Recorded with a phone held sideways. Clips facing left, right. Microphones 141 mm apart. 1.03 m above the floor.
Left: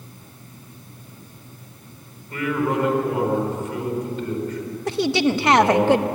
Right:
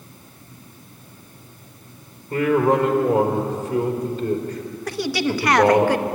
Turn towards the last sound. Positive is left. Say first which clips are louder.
# left 3 dB
turn(degrees=25)  # may be behind; listen again after turning